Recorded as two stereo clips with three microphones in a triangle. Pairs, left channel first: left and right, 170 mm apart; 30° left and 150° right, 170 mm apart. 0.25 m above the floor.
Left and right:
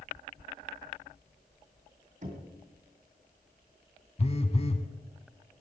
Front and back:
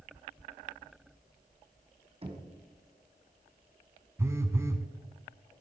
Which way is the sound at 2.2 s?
105° right.